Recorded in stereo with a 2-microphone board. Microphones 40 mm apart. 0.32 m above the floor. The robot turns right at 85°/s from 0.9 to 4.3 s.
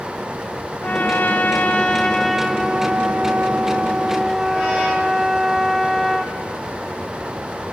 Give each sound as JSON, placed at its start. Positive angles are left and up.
{"t": 0.8, "sound": "a trumpet", "azimuth_deg": 55, "distance_m": 0.8}